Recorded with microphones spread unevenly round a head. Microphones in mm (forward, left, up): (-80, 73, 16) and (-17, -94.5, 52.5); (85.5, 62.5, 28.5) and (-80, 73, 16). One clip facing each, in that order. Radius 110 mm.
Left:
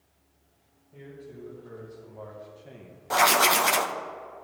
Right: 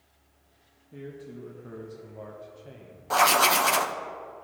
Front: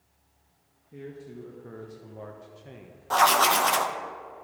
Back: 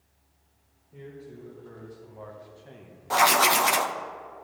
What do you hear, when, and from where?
0.9 s a man speaking: 35° right, 1.3 m; by 3.0 s 85° left, 0.8 m
3.1 s writing: 135° left, 0.6 m